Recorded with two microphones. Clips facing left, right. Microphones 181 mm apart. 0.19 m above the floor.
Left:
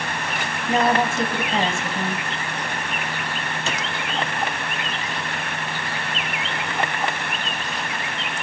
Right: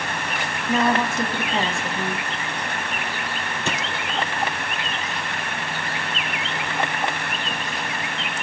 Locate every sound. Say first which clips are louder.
0.7 s a woman speaking: left 1 dB; 25° left (ahead or behind), 1.1 m
3.7 s a clap: right 2 dB; 55° right (ahead or behind), 3 m